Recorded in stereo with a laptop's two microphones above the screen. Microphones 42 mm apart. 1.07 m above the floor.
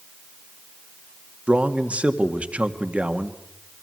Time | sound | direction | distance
1.5 | a man speaking | 30° right (ahead or behind) | 2 m